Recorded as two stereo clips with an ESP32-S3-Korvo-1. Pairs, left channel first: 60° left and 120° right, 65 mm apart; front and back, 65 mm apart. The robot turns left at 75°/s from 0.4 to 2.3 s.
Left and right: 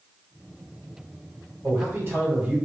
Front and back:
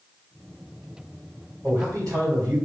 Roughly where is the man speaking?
Behind right.